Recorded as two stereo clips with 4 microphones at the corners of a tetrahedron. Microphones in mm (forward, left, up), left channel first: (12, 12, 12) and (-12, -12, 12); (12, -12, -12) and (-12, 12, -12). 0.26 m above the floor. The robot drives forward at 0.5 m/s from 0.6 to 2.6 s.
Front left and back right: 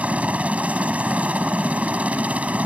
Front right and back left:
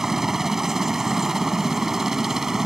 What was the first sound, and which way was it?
A helicopter, 150° right.